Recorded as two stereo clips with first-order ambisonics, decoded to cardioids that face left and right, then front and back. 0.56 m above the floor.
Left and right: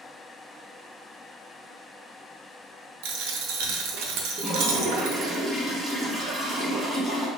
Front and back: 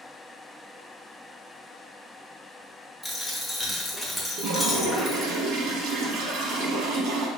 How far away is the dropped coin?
About 0.5 m.